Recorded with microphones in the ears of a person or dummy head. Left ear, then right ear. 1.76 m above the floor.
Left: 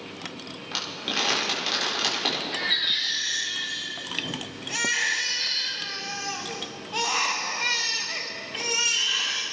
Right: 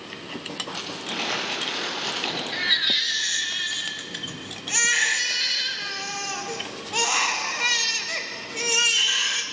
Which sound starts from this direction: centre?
A baby crying, at 2.5 s.